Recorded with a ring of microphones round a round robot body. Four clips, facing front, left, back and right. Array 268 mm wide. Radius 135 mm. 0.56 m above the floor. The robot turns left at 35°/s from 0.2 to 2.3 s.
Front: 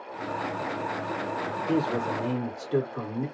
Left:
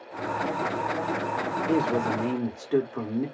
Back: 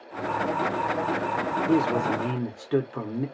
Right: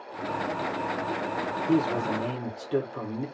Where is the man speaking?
Straight behind, 1.3 m; by 3.3 s 160° left, 1.3 m.